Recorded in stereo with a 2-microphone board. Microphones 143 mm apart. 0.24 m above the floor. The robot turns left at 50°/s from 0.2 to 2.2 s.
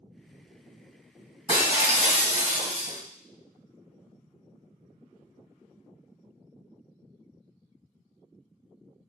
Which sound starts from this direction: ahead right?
Breaking glass, at 1.5 s.